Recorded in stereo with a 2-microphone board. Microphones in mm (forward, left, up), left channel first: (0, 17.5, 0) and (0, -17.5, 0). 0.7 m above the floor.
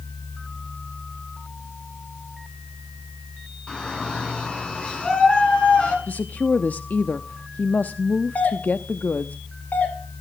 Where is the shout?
25° left (ahead or behind), 7.5 m; by 6.0 s 35° left (ahead or behind), 6.5 m.